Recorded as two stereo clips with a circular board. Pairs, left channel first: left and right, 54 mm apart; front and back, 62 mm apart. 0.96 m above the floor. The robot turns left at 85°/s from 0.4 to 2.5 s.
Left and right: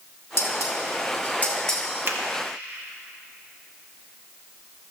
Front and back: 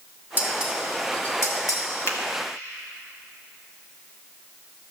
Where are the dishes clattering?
125° left, 2.0 m; by 1.8 s straight ahead, 2.0 m.